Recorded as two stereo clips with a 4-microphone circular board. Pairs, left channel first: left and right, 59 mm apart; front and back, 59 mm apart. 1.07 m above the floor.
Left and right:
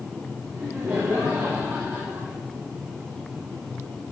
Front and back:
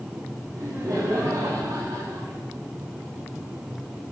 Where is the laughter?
140° right, 3 m; by 2.4 s 160° right, 3.5 m.